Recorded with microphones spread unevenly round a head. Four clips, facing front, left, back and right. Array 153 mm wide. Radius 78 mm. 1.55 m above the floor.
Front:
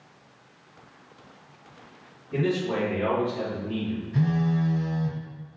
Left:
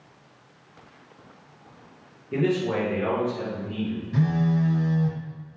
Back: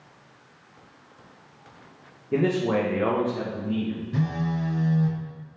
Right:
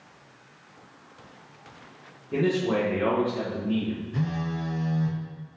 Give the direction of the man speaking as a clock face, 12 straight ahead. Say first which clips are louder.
Even, back 3 dB; 6 o'clock.